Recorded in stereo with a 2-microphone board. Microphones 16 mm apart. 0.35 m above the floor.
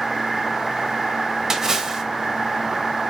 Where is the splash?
35° right (ahead or behind), 0.9 m.